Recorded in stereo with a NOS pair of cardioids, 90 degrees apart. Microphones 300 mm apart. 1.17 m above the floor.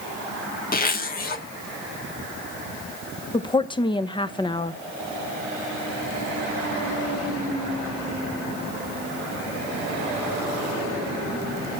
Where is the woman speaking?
15° left, 0.8 m.